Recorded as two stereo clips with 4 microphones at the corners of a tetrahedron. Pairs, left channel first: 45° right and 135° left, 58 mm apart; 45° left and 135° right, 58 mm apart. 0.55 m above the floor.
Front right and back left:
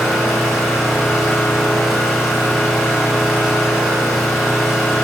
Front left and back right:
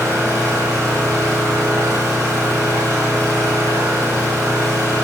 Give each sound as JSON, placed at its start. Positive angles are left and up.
{"t": 0.0, "sound": "an engine running", "azimuth_deg": -135, "distance_m": 6.0}